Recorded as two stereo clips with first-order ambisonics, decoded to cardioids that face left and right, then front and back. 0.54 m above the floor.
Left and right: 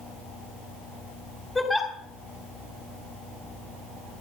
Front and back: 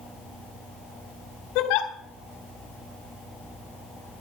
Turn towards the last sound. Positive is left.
turn(degrees=10)